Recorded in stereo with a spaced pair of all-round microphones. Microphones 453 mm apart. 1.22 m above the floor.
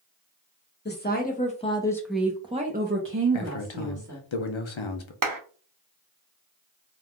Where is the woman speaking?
20° left (ahead or behind), 1.0 m; by 4.3 s 35° right (ahead or behind), 1.1 m.